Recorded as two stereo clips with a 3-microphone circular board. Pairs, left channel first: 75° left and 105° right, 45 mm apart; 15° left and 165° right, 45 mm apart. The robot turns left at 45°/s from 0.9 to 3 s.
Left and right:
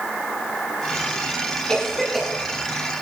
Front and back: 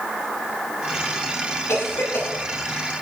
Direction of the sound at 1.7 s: 5° left.